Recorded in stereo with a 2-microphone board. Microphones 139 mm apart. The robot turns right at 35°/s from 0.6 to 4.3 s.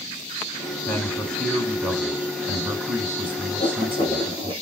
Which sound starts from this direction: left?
Writing, at 3.6 s.